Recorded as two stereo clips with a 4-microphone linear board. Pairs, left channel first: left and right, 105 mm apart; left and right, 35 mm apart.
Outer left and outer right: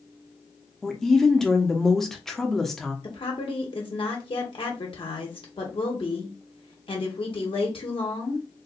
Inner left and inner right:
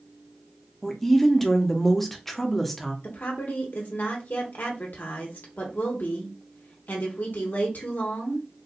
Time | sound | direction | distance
0.8 | a woman speaking | 5° left (ahead or behind) | 0.8 m
3.0 | a woman speaking | 55° left (ahead or behind) | 1.3 m